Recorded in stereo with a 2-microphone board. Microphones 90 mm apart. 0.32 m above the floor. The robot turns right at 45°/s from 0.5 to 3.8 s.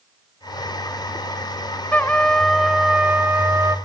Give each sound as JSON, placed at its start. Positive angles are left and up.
{"t": 1.9, "sound": "a trumpet", "azimuth_deg": 150, "distance_m": 0.7}